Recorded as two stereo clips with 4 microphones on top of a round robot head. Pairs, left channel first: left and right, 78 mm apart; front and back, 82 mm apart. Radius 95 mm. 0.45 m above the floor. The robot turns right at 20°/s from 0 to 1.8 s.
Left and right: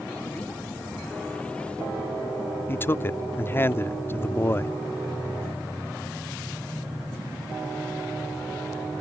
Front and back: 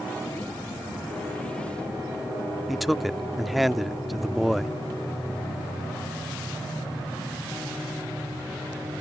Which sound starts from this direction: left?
A man speaking, at 2.7 s.